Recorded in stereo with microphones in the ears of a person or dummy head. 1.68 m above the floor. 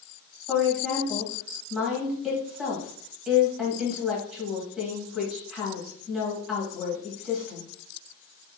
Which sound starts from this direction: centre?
A woman speaking, at 0.5 s.